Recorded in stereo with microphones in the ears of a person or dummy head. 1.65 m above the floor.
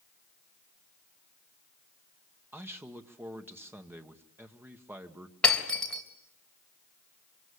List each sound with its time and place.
2.5 s a man speaking: 10° right (ahead or behind), 1.4 m
5.4 s breaking glass: 5° left (ahead or behind), 3 m